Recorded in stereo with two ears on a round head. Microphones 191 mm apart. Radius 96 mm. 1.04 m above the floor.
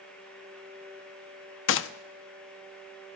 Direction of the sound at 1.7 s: 65° left (ahead or behind).